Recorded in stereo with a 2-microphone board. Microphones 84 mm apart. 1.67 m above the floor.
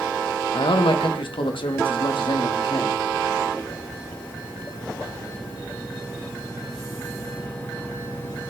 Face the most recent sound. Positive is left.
turn(degrees=70)  # may be behind; listen again after turning